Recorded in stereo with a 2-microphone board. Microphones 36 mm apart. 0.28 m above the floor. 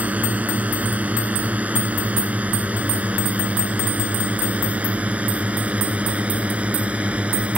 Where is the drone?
45° right (ahead or behind); by 7.6 s 35° right (ahead or behind).